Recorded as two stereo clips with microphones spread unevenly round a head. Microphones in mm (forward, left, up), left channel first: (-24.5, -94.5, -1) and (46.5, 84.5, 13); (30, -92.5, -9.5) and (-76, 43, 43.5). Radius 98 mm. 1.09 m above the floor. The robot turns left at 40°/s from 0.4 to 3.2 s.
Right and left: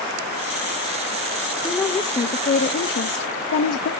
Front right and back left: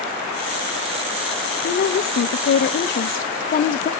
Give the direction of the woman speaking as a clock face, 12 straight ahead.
1 o'clock.